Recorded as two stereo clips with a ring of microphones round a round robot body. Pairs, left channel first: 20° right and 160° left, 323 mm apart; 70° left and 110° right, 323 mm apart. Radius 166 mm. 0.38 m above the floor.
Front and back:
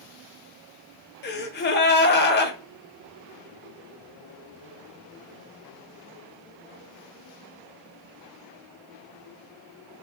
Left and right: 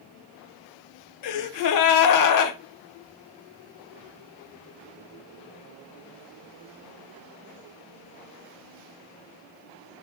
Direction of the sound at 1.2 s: 35° left.